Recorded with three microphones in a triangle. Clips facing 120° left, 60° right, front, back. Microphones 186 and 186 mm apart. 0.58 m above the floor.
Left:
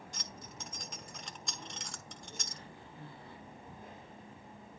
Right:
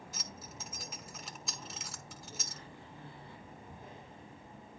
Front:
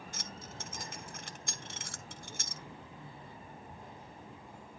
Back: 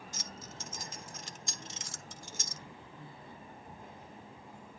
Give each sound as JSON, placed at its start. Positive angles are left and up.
{"t": 0.1, "sound": "keys jangling", "azimuth_deg": 25, "distance_m": 1.0}